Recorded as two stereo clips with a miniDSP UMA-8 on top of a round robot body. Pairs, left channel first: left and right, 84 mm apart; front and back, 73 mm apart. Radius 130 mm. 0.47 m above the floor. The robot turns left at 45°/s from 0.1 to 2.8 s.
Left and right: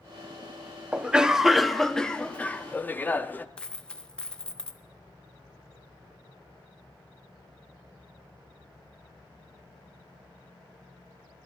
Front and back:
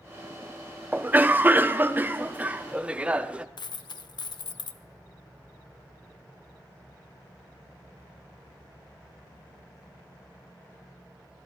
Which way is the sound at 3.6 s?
10° left.